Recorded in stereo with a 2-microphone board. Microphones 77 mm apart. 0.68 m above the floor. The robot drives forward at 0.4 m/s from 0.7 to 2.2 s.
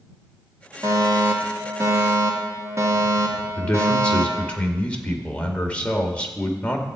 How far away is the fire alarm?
About 2 m.